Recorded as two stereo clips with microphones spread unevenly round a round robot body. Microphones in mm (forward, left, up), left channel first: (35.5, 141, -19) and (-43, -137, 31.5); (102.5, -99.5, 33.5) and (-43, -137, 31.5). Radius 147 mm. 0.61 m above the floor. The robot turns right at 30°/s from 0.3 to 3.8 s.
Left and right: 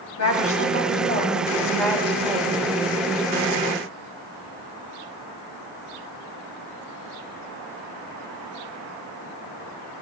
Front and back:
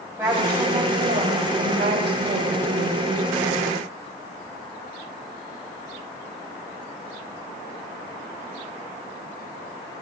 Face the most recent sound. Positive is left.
turn(degrees=-140)